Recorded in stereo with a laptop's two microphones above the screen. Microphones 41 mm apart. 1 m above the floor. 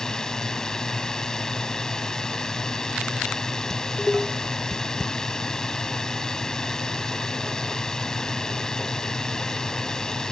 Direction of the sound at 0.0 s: 15° left (ahead or behind).